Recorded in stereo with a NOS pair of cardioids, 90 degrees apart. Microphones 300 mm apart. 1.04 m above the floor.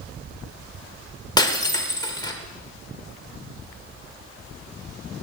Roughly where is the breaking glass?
Ahead.